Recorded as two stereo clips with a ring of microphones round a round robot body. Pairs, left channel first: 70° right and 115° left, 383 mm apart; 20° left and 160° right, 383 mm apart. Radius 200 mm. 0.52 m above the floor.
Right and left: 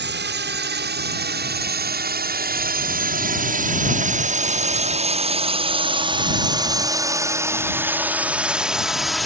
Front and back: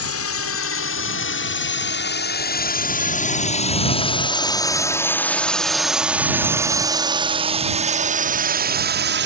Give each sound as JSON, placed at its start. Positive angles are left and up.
{"t": 0.0, "sound": "a drone", "azimuth_deg": 60}